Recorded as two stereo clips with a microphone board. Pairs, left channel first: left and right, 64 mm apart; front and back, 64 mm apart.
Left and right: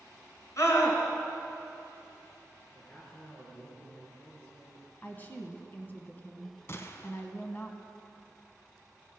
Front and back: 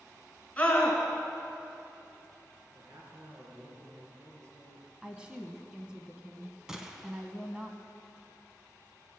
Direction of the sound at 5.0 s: 115° left.